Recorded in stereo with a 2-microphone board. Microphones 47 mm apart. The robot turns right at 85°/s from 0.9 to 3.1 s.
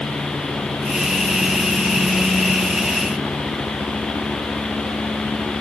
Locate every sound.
Only background noise.